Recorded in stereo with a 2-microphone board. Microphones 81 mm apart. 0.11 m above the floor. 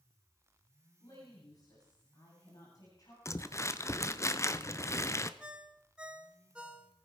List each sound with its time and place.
1.0 s a woman speaking: 50° left (ahead or behind), 9 m
3.2 s crumpling: 35° left (ahead or behind), 0.7 m
5.4 s a ringtone: 15° right (ahead or behind), 1.1 m